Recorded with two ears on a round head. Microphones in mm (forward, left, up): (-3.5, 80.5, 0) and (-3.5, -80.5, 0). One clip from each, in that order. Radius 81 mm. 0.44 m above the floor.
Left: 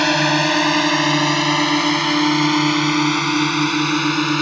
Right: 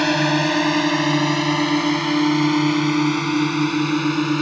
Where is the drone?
25° left (ahead or behind); by 4.4 s 40° left (ahead or behind).